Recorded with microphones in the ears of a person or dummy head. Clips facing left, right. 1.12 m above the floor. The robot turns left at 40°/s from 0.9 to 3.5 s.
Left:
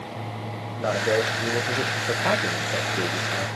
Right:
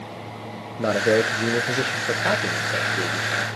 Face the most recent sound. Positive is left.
turn(degrees=150)